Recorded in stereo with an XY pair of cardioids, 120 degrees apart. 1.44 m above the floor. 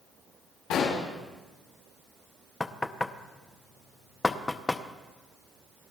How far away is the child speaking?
I don't hear a child speaking.